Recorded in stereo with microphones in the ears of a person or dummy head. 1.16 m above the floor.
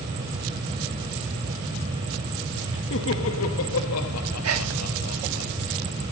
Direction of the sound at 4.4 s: 85° right.